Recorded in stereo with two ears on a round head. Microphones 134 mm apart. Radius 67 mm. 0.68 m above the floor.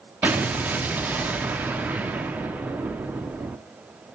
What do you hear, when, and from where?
0.2 s an explosion: 10° right (ahead or behind), 0.9 m